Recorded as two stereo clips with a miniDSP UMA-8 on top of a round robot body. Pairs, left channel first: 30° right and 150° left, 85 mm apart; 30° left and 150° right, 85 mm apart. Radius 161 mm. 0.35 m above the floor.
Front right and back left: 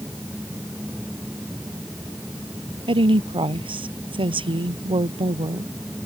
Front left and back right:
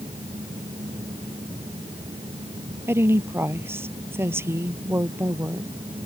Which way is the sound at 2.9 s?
145° left.